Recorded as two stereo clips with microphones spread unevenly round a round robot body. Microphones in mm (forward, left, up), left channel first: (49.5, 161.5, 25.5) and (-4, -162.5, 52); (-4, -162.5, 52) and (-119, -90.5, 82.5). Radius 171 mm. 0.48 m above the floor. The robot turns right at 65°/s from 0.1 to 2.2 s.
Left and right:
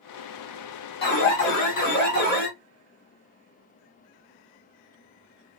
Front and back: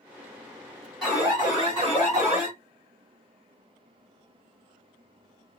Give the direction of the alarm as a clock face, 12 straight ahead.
10 o'clock.